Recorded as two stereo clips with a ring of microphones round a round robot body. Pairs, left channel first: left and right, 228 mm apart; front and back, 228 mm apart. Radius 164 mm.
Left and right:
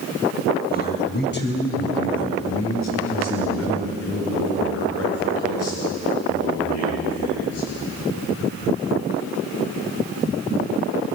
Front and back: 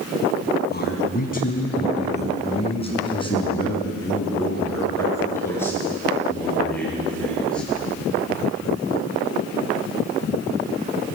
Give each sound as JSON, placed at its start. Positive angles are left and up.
{"t": 0.7, "sound": "a man speaking", "azimuth_deg": 45, "distance_m": 5.0}